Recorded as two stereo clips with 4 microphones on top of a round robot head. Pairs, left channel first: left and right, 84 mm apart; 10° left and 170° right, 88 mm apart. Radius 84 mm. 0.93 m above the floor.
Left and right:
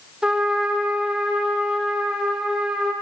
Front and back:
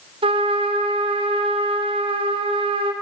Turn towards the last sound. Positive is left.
turn(degrees=-175)